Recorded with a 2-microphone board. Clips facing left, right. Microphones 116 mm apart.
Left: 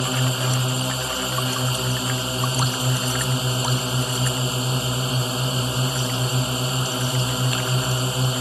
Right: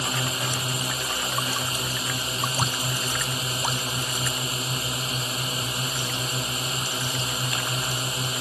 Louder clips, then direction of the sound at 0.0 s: Left 5 dB; 25° left (ahead or behind).